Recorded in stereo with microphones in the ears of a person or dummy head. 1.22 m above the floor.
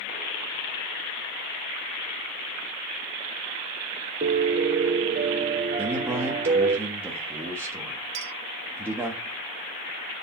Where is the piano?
40° right (ahead or behind), 0.8 m.